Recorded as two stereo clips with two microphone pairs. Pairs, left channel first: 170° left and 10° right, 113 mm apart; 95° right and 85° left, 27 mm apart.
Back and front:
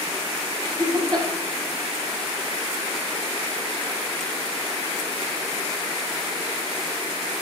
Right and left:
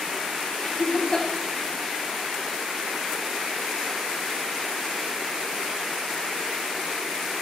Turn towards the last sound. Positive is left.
turn(degrees=-45)